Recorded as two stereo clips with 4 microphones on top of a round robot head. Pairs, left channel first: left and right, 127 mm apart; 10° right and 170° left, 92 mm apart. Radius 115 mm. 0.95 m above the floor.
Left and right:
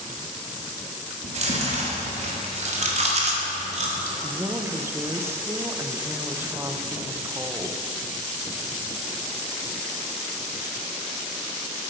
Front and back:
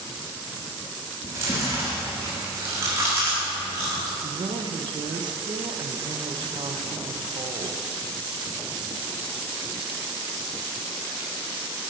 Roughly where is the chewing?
Behind right.